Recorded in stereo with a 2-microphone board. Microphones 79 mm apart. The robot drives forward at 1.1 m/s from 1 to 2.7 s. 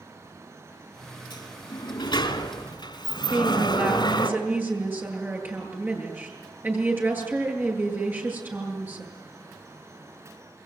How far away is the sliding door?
About 2.5 m.